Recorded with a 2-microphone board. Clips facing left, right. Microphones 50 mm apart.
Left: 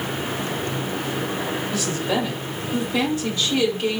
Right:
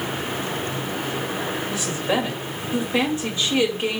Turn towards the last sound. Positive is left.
turn(degrees=-25)  # may be behind; listen again after turning